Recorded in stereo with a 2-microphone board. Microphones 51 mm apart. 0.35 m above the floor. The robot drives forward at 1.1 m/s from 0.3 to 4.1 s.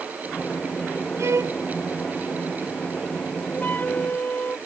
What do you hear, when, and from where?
1.2 s a violin: 70° right (ahead or behind); by 1.6 s 75° right (ahead or behind)
3.5 s a flute: 40° left (ahead or behind); by 4.6 s 35° left (ahead or behind)